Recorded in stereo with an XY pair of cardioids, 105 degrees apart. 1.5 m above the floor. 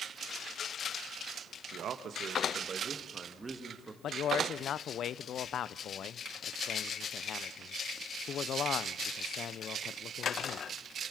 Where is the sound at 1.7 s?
65° right, 1.7 m; by 3.9 s 20° right, 2.5 m.